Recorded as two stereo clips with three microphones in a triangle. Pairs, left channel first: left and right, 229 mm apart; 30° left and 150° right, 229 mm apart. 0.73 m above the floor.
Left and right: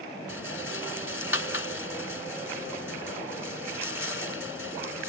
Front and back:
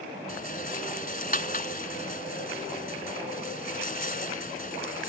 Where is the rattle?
80° left.